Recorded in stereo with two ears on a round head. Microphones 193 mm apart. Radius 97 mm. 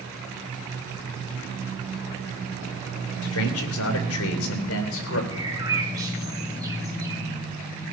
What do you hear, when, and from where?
3.2 s a man speaking: 75° left (ahead or behind), 3 m; by 5.2 s 65° left (ahead or behind), 3.5 m
5.3 s a bird: 15° right (ahead or behind), 4 m